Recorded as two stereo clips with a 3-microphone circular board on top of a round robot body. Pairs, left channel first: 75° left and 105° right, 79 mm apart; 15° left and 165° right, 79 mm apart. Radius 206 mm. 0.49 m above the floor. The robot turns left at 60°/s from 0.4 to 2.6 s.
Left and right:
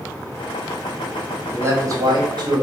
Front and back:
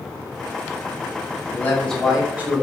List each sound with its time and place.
1.5 s a man speaking: 45° right, 1.3 m; by 2.6 s 110° right, 1.3 m